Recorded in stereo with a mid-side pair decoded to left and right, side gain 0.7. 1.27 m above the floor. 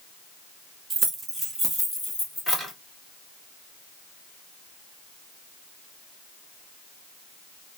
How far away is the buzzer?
I don't hear a buzzer.